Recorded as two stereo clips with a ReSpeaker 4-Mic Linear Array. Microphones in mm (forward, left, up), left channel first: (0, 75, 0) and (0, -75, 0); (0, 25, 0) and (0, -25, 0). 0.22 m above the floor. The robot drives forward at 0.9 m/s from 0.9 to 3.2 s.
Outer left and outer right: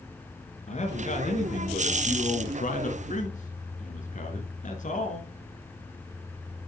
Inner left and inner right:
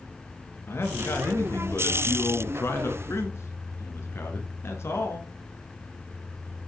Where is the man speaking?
50° left (ahead or behind), 2.5 m; by 5.3 s 60° left (ahead or behind), 2.5 m.